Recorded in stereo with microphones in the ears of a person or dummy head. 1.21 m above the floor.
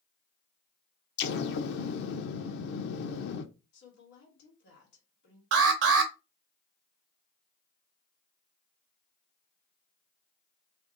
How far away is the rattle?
I don't hear a rattle.